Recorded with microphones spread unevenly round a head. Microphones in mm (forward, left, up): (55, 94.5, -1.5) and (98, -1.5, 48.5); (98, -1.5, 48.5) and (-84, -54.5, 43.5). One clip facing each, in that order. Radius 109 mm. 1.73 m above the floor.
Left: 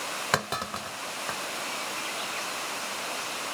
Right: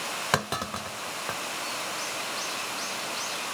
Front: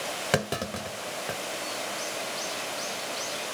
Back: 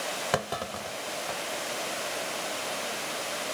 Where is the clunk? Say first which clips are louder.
Right 1 dB, front 4 dB; 30° right.